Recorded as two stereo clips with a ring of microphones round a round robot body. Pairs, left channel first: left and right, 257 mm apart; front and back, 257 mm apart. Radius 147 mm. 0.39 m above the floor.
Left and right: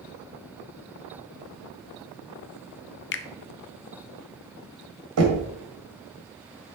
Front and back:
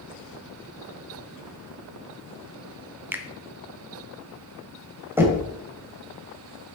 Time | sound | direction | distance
3.1 | a finger snap | 100° left | 0.7 m
5.2 | knocking | 100° right | 2.5 m